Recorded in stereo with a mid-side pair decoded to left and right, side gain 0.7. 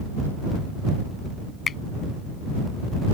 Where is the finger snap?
30° left.